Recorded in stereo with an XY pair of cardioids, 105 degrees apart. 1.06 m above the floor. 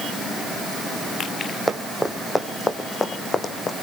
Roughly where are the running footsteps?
Ahead.